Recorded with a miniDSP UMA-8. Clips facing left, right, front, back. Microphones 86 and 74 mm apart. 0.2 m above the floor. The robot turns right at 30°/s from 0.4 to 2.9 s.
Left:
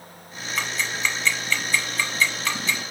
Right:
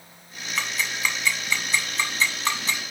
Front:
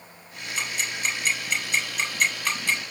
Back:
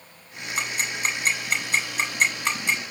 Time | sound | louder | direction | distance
0.6 | ticking | left 1 dB, back 2 dB | 175° left | 0.7 m